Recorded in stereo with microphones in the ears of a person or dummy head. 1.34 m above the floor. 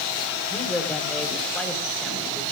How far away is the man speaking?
About 4 m.